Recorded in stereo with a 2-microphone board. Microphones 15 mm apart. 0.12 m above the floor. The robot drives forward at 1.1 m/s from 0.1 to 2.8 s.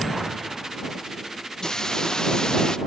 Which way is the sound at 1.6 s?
45° left (ahead or behind).